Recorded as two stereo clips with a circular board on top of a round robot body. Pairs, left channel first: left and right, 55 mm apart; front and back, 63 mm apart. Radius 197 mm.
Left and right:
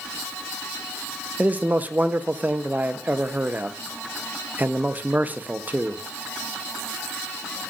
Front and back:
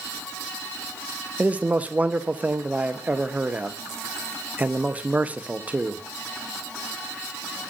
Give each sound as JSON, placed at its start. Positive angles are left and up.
{"t": 1.4, "sound": "a man speaking", "azimuth_deg": -125, "distance_m": 0.8}